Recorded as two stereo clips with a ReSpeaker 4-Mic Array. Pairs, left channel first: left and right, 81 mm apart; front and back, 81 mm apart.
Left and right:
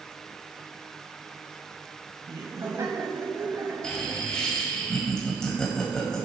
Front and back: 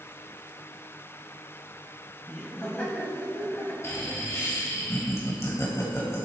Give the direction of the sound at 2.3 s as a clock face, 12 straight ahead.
2 o'clock.